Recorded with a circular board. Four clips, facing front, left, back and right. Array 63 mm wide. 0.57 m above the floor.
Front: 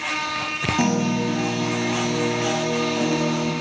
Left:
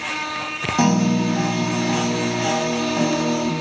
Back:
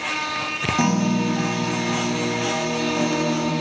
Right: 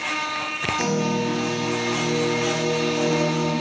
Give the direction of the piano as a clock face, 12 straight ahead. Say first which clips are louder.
Left 6 dB, back 1 dB; 9 o'clock.